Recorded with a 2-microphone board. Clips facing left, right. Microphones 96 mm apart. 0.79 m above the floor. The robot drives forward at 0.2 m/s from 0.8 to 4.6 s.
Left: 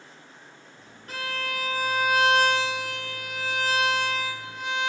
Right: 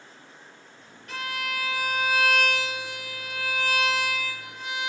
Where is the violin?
40° left (ahead or behind), 1.6 m; by 4.9 s 30° left (ahead or behind), 2 m.